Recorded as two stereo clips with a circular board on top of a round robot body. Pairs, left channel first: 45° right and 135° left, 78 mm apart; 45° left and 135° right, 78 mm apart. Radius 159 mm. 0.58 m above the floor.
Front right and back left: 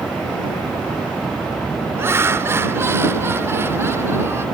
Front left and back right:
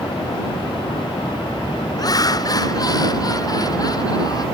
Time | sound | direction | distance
2.0 | laughter | 80° left | ?